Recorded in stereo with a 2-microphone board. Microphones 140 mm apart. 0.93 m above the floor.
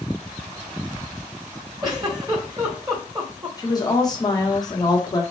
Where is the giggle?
25° right (ahead or behind), 1.1 m.